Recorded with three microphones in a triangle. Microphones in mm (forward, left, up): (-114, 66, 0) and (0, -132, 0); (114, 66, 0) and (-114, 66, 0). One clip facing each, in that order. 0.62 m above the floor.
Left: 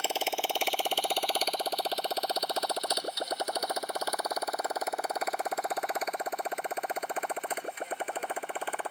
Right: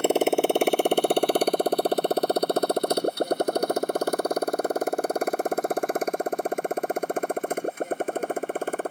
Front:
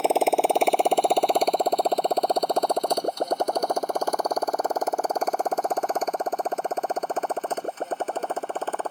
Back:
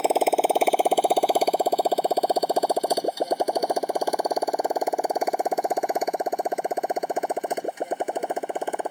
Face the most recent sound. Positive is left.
turn(degrees=-105)